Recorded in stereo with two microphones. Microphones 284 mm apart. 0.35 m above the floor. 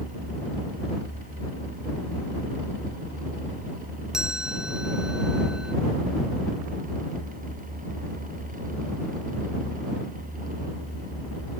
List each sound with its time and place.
4.1 s a chime: 5° right (ahead or behind)